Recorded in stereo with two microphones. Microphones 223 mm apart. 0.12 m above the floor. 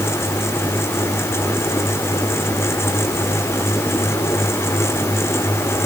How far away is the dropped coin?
No dropped coin in this recording.